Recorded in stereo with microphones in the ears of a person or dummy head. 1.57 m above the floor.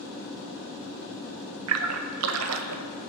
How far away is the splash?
About 0.5 m.